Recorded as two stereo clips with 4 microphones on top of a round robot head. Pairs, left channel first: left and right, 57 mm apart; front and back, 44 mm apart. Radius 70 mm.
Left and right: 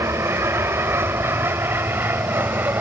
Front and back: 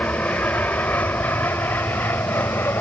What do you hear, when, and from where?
0.0 s an aircraft: 60° right; by 2.8 s 40° right